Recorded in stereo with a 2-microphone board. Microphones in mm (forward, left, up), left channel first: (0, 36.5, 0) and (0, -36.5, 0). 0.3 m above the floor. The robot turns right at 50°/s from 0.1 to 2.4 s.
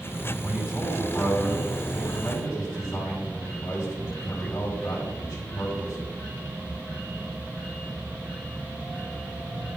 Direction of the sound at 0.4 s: 50° right.